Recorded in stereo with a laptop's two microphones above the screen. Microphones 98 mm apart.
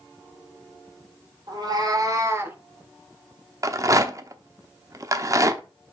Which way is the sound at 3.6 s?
35° right (ahead or behind).